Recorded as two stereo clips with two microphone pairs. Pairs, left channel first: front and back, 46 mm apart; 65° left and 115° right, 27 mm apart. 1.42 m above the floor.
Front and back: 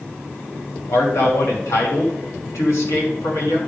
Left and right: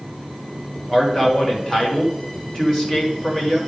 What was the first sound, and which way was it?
A man speaking, 5° right.